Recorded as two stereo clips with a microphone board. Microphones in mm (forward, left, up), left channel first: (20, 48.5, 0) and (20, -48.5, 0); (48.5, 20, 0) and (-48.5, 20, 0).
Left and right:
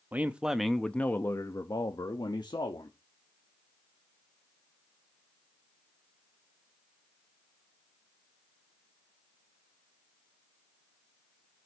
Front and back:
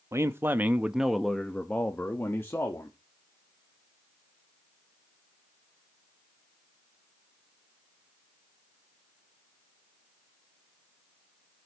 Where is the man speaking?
145° right, 0.8 m; by 3.0 s 60° left, 1.4 m.